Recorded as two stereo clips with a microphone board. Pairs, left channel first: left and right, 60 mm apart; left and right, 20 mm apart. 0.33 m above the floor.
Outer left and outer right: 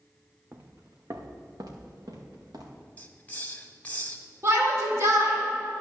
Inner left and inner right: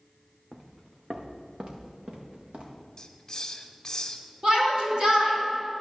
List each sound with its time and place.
0.5 s footsteps: 30° right (ahead or behind), 1.1 m; by 2.8 s 85° right, 3 m
3.0 s a hiss: 25° left (ahead or behind), 0.9 m
4.4 s a shout: 50° right (ahead or behind), 3.5 m